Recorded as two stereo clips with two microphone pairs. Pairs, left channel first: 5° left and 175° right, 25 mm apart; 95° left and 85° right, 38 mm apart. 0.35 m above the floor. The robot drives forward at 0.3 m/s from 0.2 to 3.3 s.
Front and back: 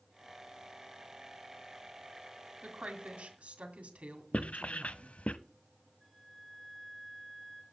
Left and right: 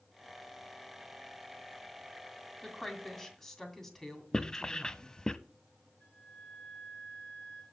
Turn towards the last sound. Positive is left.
turn(degrees=80)